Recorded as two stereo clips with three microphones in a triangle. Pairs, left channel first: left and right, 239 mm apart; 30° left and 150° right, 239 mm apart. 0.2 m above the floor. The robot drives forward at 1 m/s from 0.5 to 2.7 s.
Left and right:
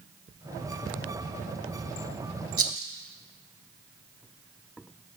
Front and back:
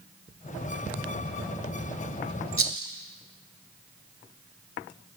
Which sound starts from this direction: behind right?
A rattle, at 2.6 s.